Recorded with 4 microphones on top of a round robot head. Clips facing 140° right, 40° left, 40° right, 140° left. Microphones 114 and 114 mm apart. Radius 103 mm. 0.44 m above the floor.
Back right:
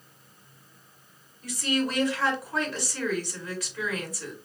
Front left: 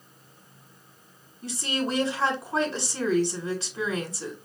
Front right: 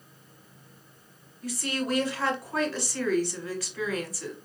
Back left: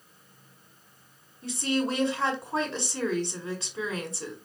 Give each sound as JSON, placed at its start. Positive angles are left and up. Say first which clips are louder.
{"t": 1.4, "sound": "a woman speaking", "louder": "back right 2 dB, back left 3 dB", "azimuth_deg": 90, "distance_m": 1.1}